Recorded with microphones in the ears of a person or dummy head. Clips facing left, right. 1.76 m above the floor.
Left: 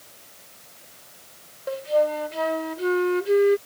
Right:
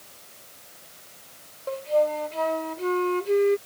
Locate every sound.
1.7 s a flute: 15° left (ahead or behind)